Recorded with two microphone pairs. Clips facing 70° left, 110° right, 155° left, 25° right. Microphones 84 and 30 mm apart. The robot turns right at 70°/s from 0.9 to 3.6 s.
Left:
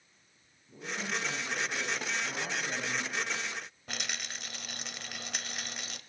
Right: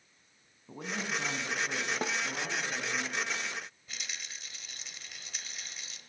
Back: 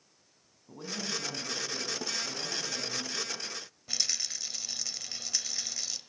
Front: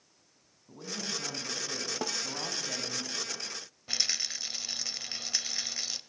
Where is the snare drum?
60° right, 0.6 m; by 2.2 s 50° right, 0.6 m.